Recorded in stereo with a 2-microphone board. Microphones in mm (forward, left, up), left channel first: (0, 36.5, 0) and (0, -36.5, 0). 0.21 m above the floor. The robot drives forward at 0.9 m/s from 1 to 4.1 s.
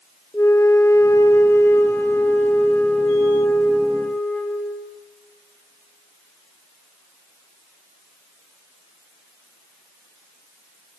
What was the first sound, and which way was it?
A flute, 40° left (ahead or behind).